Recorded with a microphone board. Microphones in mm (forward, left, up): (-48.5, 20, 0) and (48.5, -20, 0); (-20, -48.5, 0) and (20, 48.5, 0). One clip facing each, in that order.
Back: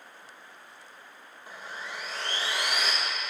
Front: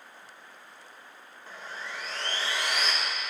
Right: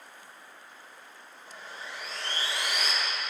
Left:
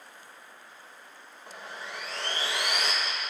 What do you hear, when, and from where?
1.5 s sawing: 80° left, 1.0 m